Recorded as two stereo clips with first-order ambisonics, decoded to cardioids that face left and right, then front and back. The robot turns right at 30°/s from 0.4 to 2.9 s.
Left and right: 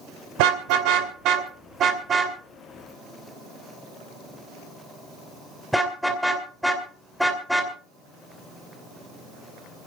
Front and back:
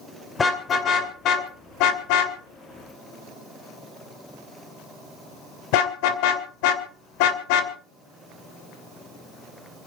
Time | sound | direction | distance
0.4 | a car horn | 75° right | 2.5 m